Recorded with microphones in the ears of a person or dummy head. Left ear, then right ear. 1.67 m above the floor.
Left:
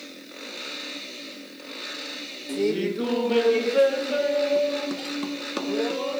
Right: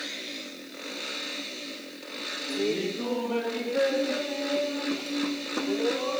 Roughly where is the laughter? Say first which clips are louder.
Left 5 dB; left.